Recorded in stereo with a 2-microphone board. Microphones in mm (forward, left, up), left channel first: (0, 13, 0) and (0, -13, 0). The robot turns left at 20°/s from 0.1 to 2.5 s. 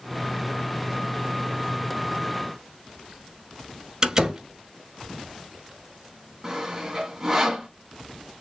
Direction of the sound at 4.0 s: 25° right (ahead or behind).